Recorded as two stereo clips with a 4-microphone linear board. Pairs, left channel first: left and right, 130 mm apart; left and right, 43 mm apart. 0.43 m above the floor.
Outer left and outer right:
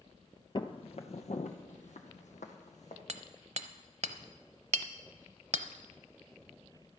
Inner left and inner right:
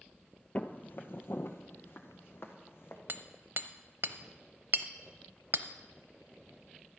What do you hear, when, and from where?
0.6 s footsteps: 40° left (ahead or behind), 0.6 m; by 3.0 s 65° left (ahead or behind), 1.5 m
3.1 s hammering: 60° right (ahead or behind), 0.6 m